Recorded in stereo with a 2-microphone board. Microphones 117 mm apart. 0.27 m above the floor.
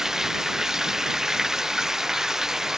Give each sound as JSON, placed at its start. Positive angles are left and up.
{"t": 0.0, "sound": "running water", "side_deg": -5}